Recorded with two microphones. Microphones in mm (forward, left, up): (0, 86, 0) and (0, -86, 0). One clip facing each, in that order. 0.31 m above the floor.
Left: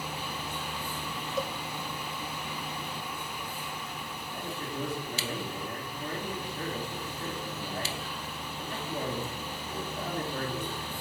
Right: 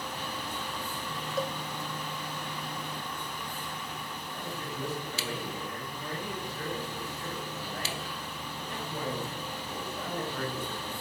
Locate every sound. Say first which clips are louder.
1.4 s a cowbell: right 1 dB; centre (ahead or behind), 0.5 m
4.3 s a man speaking: left 3 dB; 35° left (ahead or behind), 5 m